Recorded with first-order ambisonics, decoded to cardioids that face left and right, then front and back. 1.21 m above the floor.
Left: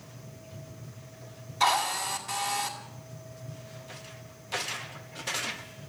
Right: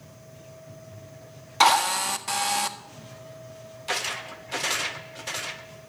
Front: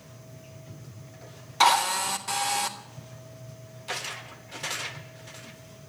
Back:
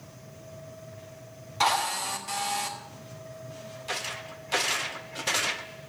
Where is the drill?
70° right, 1.6 m.